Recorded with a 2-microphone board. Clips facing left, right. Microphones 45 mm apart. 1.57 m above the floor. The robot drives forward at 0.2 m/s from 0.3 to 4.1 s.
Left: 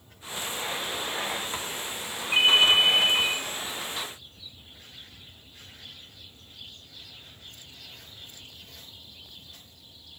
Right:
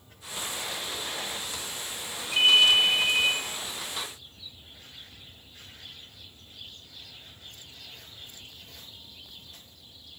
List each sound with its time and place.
2.3 s a ringtone: 35° left (ahead or behind), 0.6 m